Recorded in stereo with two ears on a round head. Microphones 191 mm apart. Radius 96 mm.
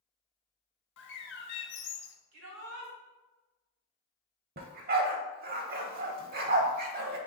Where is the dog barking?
45° right (ahead or behind), 0.6 m.